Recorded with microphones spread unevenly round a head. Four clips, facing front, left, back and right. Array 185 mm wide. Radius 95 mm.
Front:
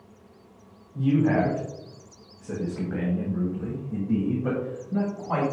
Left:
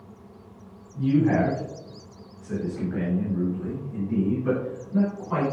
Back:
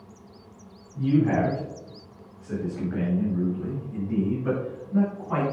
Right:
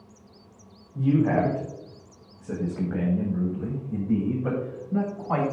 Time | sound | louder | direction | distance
0.9 | a man speaking | left 1 dB, even | 60° right | 5.5 m